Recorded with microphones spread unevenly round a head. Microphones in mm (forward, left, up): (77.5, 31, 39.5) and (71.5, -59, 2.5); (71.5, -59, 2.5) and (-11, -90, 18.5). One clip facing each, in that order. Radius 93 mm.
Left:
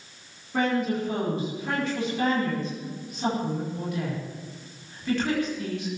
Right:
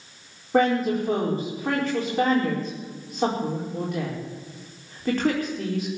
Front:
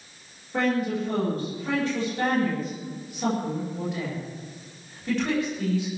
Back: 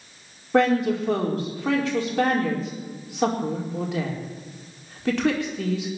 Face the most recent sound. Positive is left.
turn(degrees=-145)